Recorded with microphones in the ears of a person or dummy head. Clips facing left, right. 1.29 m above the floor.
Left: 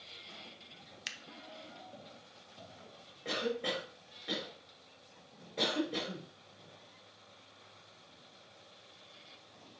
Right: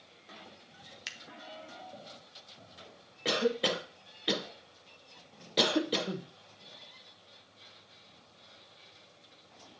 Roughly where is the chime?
I don't hear a chime.